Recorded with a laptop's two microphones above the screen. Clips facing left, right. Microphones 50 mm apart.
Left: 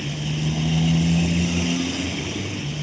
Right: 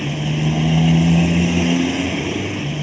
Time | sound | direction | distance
0.0 | a motorcycle | 35° right (ahead or behind) | ?